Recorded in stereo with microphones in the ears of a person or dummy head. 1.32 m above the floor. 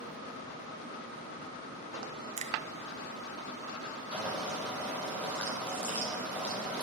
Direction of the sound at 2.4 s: 35° right (ahead or behind).